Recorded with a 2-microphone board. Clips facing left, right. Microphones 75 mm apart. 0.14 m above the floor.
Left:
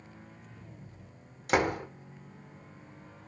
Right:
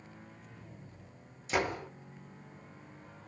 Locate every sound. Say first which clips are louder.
1.5 s a door slam: left 5 dB; 65° left (ahead or behind), 5.5 m